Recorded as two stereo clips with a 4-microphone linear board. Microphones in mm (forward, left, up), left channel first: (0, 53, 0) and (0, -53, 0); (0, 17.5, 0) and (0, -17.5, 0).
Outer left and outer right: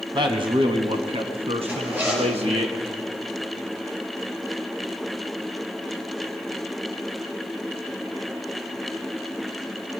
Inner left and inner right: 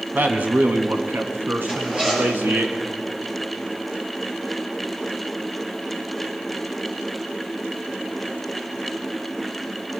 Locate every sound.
0.1 s a man speaking: 45° right (ahead or behind), 1.7 m; by 2.7 s 70° right (ahead or behind), 2.5 m
1.7 s a zipper: 15° right (ahead or behind), 6 m